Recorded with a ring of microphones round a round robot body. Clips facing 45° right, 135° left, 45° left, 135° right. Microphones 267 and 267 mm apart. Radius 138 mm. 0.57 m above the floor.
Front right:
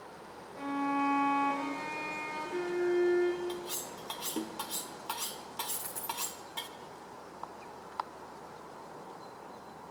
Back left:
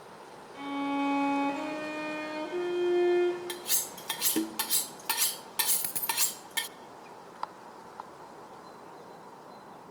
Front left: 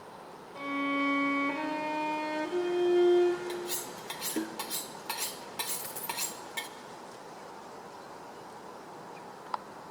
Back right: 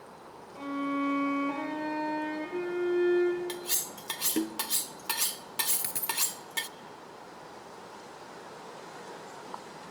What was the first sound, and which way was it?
A violin, 115° left.